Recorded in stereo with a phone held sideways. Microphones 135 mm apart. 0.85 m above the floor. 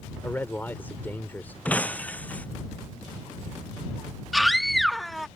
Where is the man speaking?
15° left (ahead or behind).